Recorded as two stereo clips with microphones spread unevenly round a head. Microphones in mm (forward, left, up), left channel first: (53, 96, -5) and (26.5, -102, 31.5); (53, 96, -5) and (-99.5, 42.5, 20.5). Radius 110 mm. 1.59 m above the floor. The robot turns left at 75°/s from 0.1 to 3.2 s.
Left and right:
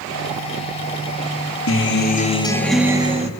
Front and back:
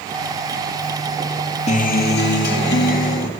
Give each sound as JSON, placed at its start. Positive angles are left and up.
{"t": 1.7, "sound": "a guitar", "azimuth_deg": 65, "distance_m": 1.6}